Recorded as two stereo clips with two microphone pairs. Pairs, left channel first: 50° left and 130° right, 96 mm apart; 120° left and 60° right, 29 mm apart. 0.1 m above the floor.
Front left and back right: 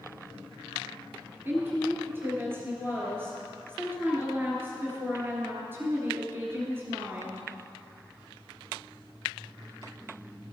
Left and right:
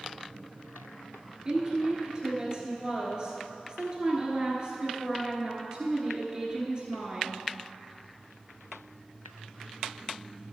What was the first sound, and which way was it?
A woman speaking, 80° right.